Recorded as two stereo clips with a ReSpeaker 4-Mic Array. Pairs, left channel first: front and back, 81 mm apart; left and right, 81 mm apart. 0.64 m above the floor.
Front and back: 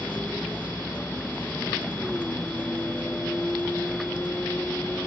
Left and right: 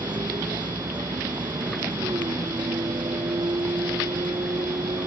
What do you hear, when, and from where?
0.0 s a vehicle: 75° right